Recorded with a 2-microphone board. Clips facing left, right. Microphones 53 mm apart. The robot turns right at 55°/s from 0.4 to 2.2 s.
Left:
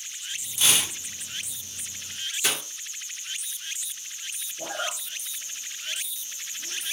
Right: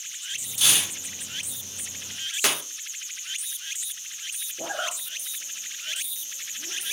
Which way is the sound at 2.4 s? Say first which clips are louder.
Right 2 dB; 65° right (ahead or behind).